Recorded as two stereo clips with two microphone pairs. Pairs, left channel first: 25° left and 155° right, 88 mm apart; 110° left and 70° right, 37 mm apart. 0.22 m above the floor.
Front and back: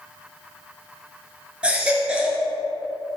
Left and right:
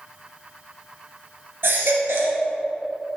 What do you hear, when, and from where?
1.6 s a baby crying: 80° right, 1.6 m